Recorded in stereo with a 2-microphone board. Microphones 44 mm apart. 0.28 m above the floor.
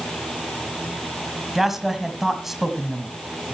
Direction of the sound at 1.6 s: 5° right (ahead or behind).